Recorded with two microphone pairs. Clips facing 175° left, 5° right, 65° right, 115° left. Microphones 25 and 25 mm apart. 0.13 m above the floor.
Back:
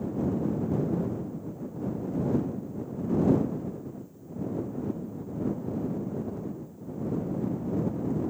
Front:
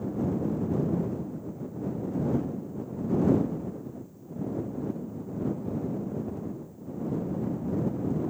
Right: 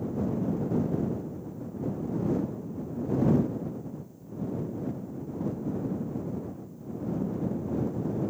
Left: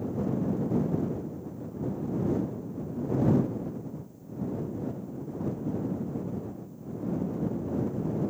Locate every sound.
Only background noise.